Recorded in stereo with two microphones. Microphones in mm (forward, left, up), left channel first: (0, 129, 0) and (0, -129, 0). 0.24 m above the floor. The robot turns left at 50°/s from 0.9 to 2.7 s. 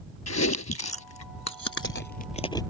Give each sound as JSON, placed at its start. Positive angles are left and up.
{"t": 0.3, "sound": "chewing", "side_deg": 80}